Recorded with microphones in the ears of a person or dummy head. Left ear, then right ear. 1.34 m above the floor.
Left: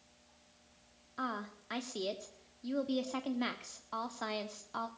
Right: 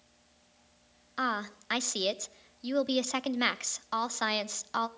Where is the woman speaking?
55° right (ahead or behind), 0.5 m.